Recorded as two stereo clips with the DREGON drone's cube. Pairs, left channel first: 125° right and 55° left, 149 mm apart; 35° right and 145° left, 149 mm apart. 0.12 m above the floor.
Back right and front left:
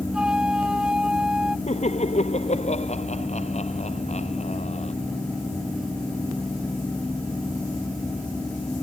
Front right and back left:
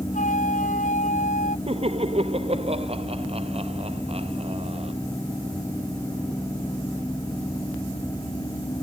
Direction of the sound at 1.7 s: 165° right.